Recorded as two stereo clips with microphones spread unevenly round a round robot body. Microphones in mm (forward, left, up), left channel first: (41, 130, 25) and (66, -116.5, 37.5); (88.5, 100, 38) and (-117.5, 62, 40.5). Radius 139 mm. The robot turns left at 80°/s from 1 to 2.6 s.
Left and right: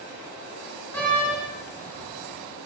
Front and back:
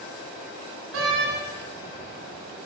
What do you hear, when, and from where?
0.9 s a door slam: straight behind, 3 m; by 1.4 s 150° left, 3 m